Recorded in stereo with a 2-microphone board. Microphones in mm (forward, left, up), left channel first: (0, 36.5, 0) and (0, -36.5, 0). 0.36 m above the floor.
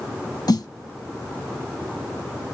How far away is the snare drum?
About 0.6 m.